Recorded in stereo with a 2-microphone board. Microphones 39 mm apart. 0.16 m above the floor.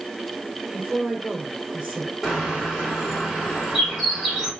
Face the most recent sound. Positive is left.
turn(degrees=-10)  # may be behind; listen again after turning